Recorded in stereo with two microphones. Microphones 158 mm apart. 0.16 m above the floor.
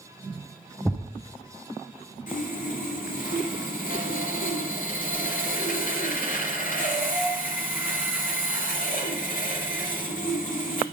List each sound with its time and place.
0.8 s a thud: 5° left (ahead or behind), 1.3 m
2.3 s sawing: 65° left (ahead or behind), 2.5 m